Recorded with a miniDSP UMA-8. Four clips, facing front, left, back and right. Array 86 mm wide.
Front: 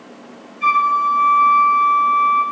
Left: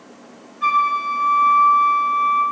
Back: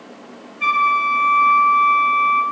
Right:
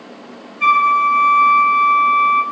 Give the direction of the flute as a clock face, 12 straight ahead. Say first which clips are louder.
Right 5 dB, front 2 dB; 4 o'clock.